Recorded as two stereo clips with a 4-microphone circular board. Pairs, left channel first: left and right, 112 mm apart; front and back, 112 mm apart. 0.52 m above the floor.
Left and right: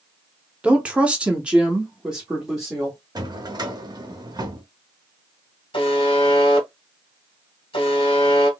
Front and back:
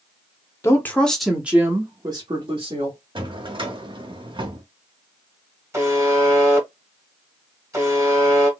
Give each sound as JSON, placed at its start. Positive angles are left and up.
{"t": 0.6, "sound": "a woman speaking", "azimuth_deg": -25, "distance_m": 0.8}
{"t": 3.1, "sound": "a drawer", "azimuth_deg": -140, "distance_m": 0.8}
{"t": 5.7, "sound": "a buzzer", "azimuth_deg": 120, "distance_m": 1.1}